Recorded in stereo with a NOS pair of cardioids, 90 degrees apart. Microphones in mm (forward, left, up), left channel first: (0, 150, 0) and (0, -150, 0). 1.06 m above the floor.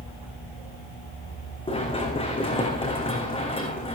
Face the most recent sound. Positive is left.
turn(degrees=20)